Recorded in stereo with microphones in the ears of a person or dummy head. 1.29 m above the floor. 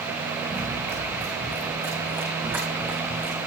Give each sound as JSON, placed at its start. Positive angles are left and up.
{"t": 0.5, "sound": "running footsteps", "side_deg": -15, "distance_m": 5.5}